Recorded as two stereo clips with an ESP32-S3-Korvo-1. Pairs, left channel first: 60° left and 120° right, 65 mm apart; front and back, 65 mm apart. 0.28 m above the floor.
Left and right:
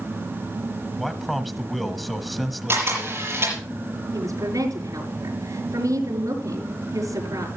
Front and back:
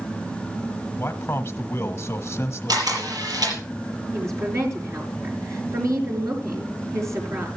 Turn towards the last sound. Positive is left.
turn(degrees=-140)